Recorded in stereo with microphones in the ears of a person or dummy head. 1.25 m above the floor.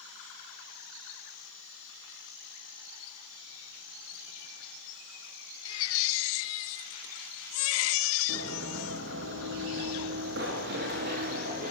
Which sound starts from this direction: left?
A baby crying, at 5.7 s.